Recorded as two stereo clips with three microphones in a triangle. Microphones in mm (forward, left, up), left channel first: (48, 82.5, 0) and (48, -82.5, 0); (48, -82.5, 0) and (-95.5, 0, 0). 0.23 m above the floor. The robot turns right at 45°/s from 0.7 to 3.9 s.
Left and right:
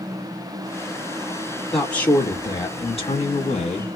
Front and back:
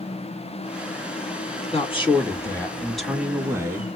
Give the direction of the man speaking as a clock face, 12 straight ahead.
12 o'clock.